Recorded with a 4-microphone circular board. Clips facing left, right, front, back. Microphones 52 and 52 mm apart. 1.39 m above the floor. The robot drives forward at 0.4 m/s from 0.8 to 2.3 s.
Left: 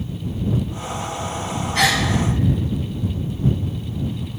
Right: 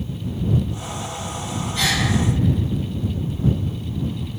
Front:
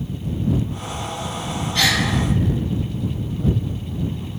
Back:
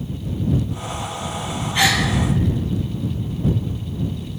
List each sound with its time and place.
1.8 s a gasp: 105° left, 0.8 m; by 2.0 s 115° left, 0.9 m